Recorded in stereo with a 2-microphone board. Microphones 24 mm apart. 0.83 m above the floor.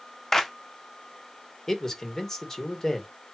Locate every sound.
0.3 s a clap: 20° left (ahead or behind), 1.1 m
1.7 s a man speaking: 20° left (ahead or behind), 2.5 m